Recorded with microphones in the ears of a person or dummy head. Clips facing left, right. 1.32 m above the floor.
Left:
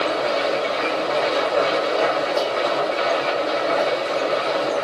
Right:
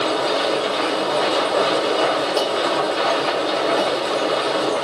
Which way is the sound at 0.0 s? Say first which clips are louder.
Right 1 dB; 55° right (ahead or behind).